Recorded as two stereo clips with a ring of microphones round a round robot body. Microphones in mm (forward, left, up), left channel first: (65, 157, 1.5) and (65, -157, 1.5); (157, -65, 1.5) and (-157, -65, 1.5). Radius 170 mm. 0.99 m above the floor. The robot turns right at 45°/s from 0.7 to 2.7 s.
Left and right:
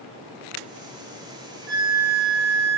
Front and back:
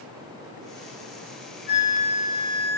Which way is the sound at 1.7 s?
115° right.